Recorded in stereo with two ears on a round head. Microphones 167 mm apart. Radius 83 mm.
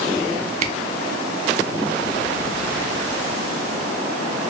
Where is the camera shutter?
35° right (ahead or behind), 0.5 m.